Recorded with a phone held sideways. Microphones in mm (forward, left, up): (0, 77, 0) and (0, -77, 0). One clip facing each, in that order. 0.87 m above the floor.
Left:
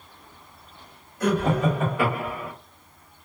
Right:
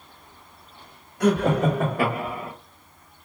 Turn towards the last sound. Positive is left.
turn(degrees=-15)  # may be behind; listen again after turning